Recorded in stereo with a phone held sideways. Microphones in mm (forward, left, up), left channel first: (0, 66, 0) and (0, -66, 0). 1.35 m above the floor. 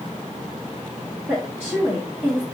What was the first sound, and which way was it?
A woman speaking, 15° right (ahead or behind).